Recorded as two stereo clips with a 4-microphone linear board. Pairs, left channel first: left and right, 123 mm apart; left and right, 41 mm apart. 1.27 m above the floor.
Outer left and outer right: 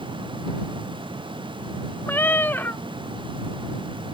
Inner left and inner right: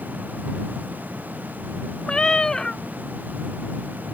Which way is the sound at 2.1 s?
15° left (ahead or behind).